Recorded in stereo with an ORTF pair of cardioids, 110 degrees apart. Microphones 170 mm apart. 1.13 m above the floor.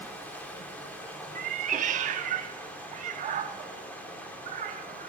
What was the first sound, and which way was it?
Running water, 10° left.